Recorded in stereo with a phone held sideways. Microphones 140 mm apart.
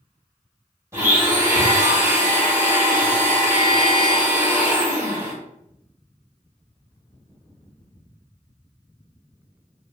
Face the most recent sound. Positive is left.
turn(degrees=-20)  # may be behind; listen again after turning